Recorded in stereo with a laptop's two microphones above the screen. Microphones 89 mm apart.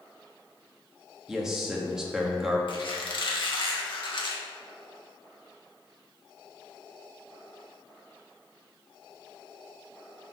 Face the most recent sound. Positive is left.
turn(degrees=60)  # may be behind; listen again after turning